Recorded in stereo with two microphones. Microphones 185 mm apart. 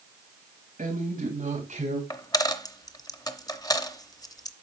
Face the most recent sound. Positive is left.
turn(degrees=20)  # may be behind; listen again after turning